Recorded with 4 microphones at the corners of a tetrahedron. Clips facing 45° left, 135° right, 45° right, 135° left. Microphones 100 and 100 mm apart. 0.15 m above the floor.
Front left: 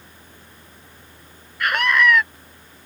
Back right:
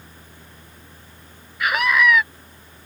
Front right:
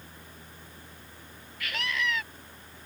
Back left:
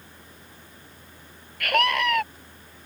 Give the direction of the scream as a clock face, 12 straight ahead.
7 o'clock.